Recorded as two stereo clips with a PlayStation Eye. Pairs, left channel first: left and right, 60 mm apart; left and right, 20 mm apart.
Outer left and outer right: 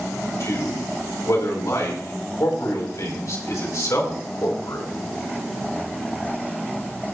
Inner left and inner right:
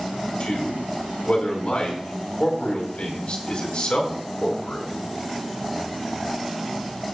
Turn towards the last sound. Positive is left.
turn(degrees=60)  # may be behind; listen again after turning